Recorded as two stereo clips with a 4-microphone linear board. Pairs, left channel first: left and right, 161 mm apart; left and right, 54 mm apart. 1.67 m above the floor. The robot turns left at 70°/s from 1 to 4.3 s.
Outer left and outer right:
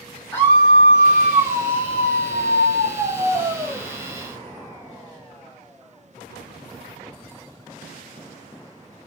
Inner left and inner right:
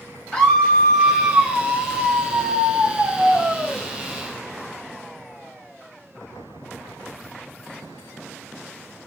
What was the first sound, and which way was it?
A scream, 15° left.